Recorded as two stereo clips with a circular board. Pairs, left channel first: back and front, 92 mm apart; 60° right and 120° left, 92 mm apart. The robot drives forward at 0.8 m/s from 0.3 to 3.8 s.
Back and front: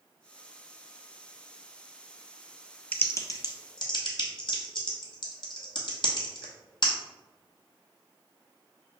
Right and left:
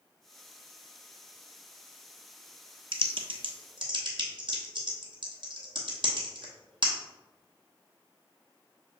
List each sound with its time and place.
2.9 s typing on a keyboard: 105° left, 0.6 m; by 6.9 s 150° left, 1.1 m